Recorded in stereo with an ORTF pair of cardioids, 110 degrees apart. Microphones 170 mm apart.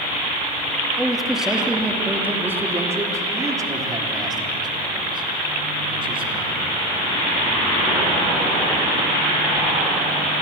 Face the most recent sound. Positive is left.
turn(degrees=-30)